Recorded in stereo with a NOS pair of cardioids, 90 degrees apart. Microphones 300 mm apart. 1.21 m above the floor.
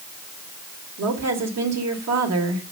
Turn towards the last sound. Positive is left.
turn(degrees=-60)